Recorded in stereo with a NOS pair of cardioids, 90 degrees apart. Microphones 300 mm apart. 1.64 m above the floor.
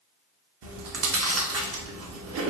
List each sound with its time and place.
0.6 s chewing: 50° right, 0.8 m